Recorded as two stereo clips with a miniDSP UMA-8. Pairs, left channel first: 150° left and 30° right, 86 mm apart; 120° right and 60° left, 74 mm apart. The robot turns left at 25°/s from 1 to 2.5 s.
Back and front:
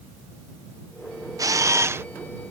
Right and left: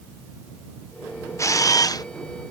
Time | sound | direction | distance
1.4 | a camera shutter | 75° right | ?